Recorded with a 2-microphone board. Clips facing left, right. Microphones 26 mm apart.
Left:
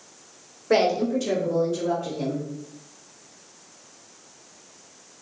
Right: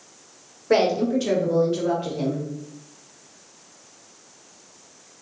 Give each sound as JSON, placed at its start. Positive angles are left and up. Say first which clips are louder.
{"t": 0.7, "sound": "a woman speaking", "louder": "right 1 dB", "side_deg": 0, "distance_m": 1.0}